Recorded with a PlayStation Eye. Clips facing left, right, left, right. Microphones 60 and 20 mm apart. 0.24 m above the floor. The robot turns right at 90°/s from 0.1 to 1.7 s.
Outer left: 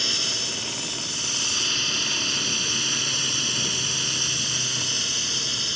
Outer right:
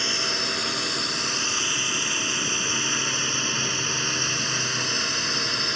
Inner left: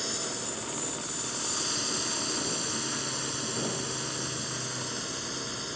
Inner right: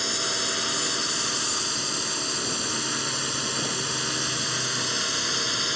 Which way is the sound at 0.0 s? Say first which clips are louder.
Outer right 3 dB, inner right 8 dB; 25° right (ahead or behind).